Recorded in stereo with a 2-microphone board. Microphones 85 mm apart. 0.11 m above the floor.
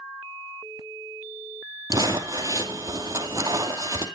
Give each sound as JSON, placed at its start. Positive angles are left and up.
{"t": 1.9, "sound": "crumpling", "side_deg": -40, "distance_m": 2.0}